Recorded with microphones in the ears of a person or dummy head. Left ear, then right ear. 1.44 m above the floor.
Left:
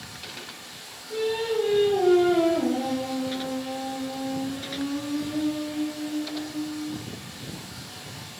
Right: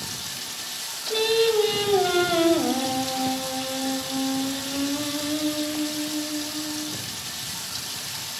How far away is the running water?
About 1.7 m.